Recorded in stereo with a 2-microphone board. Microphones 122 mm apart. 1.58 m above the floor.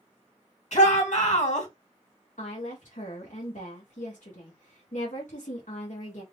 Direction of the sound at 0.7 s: 70° left (ahead or behind).